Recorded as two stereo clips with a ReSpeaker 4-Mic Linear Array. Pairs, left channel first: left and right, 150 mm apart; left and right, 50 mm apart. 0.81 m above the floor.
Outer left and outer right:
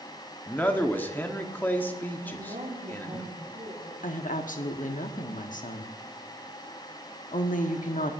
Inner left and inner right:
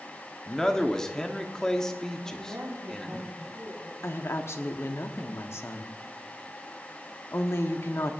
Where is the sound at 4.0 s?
60° left (ahead or behind), 1.4 m.